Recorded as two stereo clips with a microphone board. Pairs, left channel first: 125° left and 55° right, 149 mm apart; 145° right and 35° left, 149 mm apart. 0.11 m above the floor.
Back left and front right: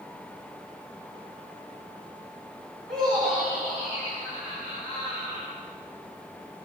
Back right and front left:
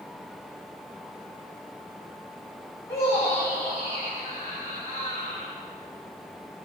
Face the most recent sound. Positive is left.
turn(degrees=-85)